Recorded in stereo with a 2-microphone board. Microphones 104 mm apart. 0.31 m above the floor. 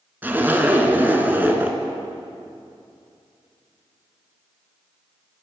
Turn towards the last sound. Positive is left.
turn(degrees=-20)  # may be behind; listen again after turning